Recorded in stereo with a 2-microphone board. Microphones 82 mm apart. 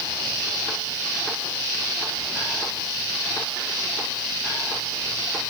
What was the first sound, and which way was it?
Only background noise.